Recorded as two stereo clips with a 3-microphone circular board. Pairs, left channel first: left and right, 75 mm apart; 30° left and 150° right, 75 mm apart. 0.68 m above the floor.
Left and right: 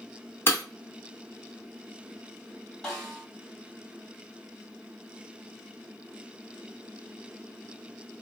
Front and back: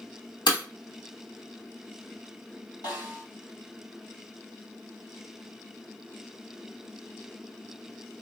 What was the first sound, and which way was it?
Breaking glass, 30° left.